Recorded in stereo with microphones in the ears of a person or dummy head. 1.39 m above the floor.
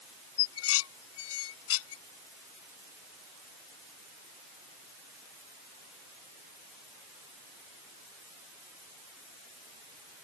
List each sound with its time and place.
0.4 s dishes clattering: 85° left